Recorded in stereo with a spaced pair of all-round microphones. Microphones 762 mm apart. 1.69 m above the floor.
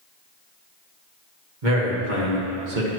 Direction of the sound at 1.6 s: 75° right (ahead or behind).